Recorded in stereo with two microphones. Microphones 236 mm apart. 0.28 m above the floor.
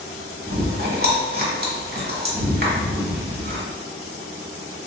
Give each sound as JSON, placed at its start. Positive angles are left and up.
{"t": 0.5, "sound": "chewing", "side_deg": -40, "distance_m": 1.0}